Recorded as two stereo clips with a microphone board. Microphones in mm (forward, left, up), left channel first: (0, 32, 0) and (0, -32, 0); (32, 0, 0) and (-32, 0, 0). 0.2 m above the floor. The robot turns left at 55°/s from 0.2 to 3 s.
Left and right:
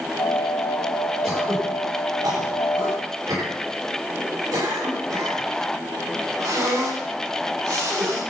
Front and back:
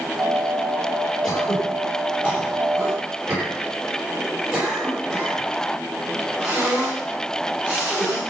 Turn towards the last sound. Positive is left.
turn(degrees=-105)